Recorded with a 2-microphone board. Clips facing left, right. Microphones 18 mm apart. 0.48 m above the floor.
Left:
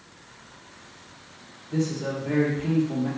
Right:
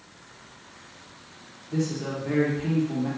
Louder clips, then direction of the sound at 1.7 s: Left 1 dB; 15° right (ahead or behind).